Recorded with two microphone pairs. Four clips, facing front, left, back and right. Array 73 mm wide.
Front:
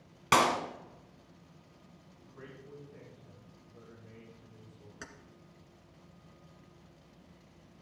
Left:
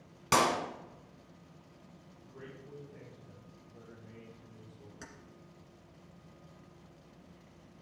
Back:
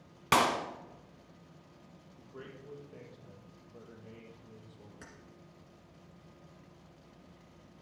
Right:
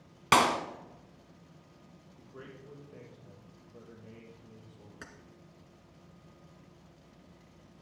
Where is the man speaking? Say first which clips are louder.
Right 1 dB, back 2 dB; 145° right, 5.5 m.